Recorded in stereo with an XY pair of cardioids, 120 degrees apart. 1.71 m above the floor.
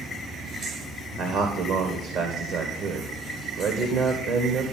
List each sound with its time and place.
1.2 s a man speaking: 65° right, 1.5 m